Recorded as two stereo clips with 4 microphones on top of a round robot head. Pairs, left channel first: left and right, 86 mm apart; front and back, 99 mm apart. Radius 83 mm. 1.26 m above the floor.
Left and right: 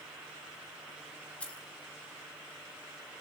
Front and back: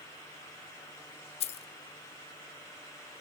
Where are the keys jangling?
10° left, 0.9 m.